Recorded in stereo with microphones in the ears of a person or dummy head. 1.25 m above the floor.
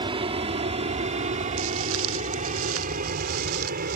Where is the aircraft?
25° right (ahead or behind); by 4.0 s 45° right (ahead or behind).